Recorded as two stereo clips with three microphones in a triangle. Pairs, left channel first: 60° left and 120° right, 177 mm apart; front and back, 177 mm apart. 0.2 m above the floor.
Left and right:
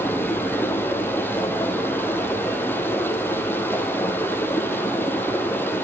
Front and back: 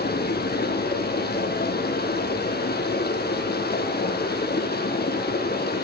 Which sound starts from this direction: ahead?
Running water, at 0.0 s.